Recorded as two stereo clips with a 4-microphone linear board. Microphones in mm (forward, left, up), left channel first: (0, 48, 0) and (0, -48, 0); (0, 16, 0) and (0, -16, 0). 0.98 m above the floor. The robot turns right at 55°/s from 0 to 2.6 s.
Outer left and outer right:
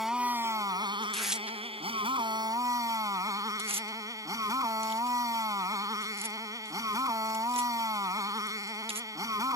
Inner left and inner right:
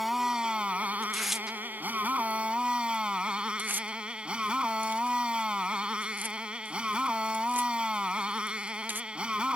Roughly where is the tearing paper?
Centre.